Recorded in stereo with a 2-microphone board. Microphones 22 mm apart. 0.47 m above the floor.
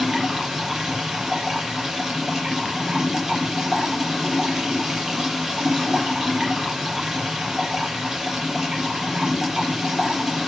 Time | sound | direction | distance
0.0 | running water | 25° right (ahead or behind) | 7.5 m